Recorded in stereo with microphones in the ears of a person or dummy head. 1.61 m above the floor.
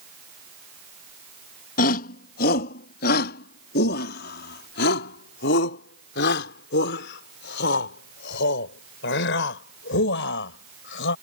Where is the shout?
55° left (ahead or behind); by 11.1 s 75° left (ahead or behind).